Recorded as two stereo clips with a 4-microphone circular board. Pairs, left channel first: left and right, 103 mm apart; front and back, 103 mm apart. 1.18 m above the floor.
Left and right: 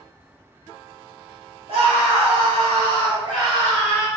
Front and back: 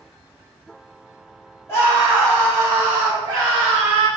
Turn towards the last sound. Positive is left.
turn(degrees=-165)